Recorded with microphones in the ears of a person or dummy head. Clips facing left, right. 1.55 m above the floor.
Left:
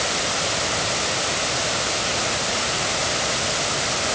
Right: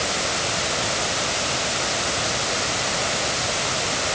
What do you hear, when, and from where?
Only background noise.